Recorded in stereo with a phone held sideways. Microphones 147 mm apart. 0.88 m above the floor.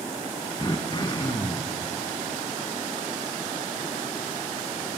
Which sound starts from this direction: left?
Throat clearing, at 0.6 s.